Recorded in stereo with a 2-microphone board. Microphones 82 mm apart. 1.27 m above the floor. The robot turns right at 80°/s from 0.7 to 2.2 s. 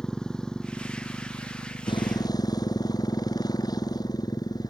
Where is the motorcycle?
10° left; by 4.7 s 130° left.